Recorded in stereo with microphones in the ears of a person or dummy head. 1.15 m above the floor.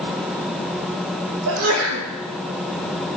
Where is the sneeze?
70° right (ahead or behind), 1.5 m.